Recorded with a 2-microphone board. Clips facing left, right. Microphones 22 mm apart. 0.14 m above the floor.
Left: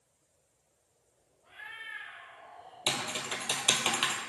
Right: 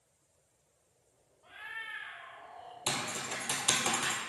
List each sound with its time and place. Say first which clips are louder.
1.4 s a cat meowing: right 1 dB; 65° right (ahead or behind), 2.5 m; by 2.8 s 50° right (ahead or behind), 1.9 m
2.9 s typing on a keyboard: left 3 dB; 80° left, 0.8 m